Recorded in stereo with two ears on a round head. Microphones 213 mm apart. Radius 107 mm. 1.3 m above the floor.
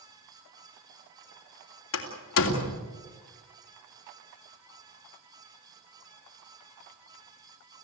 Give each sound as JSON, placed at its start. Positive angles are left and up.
{"t": 1.9, "sound": "a door slam", "side_deg": 60, "distance_m": 3.0}